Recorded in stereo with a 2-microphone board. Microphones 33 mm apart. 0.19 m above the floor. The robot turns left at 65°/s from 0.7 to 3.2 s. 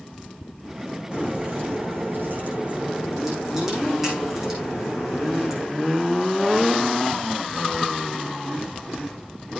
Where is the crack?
30° right, 8 m; by 5.7 s 170° right, 8 m.